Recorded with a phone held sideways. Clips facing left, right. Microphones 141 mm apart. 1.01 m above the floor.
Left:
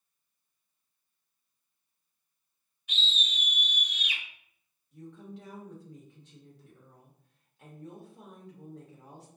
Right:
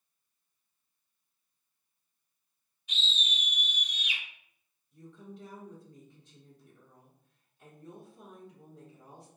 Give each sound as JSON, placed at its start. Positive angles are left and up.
{"t": 2.9, "sound": "a scream", "side_deg": 55, "distance_m": 1.5}
{"t": 4.9, "sound": "a woman speaking", "side_deg": 80, "distance_m": 1.4}